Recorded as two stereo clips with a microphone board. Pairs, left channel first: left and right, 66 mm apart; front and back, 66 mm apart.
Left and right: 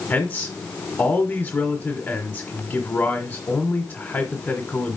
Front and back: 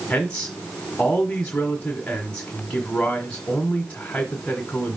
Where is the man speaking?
65° left, 1.3 m.